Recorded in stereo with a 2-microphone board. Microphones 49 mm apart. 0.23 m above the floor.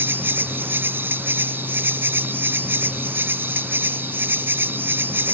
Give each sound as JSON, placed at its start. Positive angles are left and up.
{"t": 0.0, "sound": "an insect", "side_deg": -50}